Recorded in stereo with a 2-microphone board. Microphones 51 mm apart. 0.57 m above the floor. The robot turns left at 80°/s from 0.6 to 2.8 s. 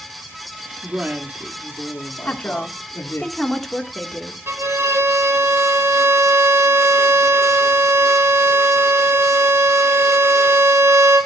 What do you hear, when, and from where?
0.8 s a woman speaking: 145° right, 0.9 m; by 3.2 s 60° left, 0.9 m
2.2 s a woman speaking: 45° left, 1.5 m; by 4.4 s straight ahead, 1.5 m
4.5 s a violin: 60° right (ahead or behind), 0.9 m